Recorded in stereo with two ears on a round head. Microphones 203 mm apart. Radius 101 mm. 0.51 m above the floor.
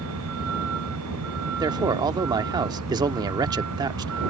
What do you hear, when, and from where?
0.0 s a vehicle: 80° right; by 4.3 s 75° right (ahead or behind)
1.6 s a man speaking: 20° right (ahead or behind)